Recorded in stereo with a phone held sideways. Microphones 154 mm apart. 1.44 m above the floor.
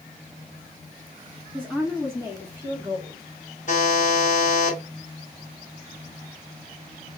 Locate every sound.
1.5 s a woman speaking: 10° left (ahead or behind), 2.5 m; by 3.3 s 15° right (ahead or behind), 2.5 m
3.7 s a buzzer: 55° left (ahead or behind), 2.5 m